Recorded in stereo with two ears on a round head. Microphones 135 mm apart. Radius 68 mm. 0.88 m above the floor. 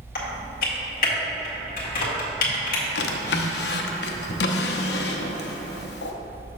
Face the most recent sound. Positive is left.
turn(degrees=75)  # may be behind; listen again after turning